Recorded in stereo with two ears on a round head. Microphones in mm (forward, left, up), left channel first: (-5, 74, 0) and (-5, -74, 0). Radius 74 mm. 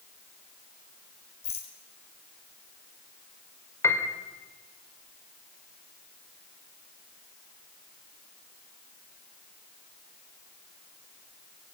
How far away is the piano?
About 2.5 m.